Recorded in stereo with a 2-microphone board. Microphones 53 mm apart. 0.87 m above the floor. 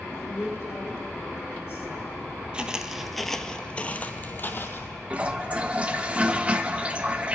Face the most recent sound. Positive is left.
turn(degrees=-20)  # may be behind; listen again after turning